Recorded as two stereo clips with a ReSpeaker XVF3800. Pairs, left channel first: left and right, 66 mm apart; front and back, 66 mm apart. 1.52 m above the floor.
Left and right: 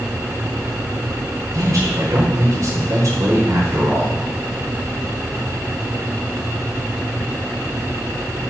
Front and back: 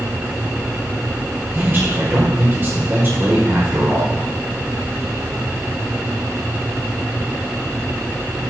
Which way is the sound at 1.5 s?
125° right.